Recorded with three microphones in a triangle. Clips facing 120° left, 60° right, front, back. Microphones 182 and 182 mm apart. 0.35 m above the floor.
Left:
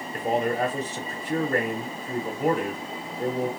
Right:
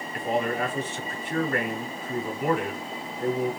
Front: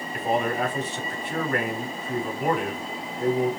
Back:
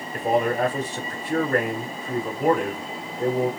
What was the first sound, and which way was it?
A man speaking, 155° left.